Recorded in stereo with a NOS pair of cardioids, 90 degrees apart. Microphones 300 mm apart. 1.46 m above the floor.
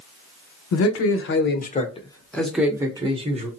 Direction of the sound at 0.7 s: 55° left.